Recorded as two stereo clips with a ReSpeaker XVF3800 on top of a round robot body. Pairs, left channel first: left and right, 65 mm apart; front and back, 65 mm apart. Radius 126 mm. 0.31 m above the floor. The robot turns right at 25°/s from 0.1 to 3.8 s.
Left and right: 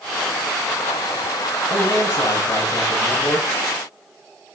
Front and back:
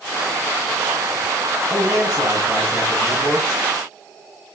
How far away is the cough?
No cough in this recording.